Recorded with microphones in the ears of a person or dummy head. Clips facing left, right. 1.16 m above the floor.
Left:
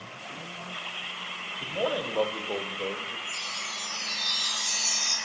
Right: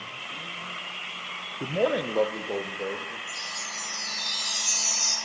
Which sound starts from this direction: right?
A man speaking, at 1.6 s.